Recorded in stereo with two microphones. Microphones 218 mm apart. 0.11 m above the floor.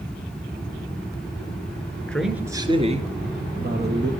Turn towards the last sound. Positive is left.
turn(degrees=-55)  # may be behind; listen again after turning